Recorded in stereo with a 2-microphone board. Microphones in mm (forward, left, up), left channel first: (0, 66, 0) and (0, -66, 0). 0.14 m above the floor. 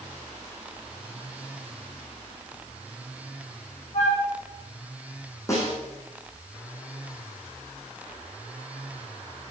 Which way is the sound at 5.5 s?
25° left (ahead or behind).